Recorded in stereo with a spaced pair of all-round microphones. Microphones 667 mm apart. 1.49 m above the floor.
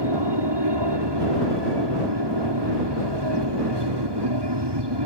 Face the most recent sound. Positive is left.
turn(degrees=-35)  # may be behind; listen again after turning